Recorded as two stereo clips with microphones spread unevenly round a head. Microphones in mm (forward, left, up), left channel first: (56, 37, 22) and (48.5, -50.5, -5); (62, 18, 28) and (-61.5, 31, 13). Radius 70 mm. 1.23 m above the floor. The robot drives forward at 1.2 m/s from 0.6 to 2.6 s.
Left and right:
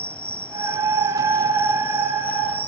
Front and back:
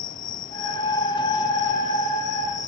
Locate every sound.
0.0 s an insect: 10° left; by 2.7 s 15° left